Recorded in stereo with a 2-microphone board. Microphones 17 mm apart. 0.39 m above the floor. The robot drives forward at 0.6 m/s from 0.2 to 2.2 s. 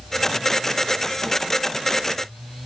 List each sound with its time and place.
Only background noise.